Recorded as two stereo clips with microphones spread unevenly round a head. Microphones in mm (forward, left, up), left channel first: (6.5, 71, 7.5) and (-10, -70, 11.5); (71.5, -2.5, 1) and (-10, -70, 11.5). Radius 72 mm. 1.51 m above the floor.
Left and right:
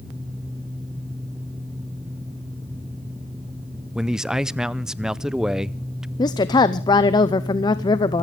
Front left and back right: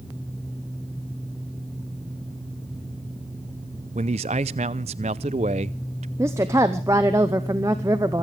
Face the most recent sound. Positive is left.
turn(degrees=145)